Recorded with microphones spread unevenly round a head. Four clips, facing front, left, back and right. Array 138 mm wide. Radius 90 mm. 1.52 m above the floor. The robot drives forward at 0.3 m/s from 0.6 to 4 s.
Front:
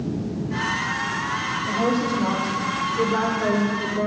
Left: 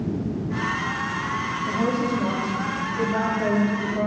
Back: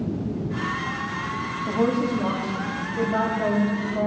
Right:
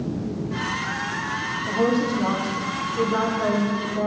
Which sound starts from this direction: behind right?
A woman speaking, at 1.7 s.